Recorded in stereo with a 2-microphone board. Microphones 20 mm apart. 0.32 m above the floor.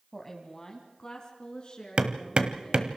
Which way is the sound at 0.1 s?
10° left (ahead or behind).